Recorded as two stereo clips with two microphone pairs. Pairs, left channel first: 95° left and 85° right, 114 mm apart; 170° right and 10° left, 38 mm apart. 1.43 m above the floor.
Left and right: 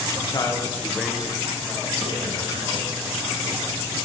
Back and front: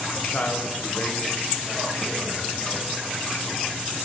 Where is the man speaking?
140° left, 1.4 m; by 2.9 s 120° right, 3 m.